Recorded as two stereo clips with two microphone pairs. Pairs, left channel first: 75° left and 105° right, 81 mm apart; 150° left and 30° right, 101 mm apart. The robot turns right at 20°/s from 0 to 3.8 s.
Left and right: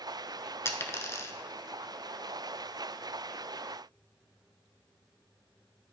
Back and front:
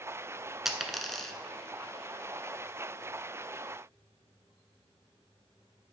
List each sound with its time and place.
0.7 s a dropped coin: 55° left, 0.8 m; by 1.3 s 70° left, 0.8 m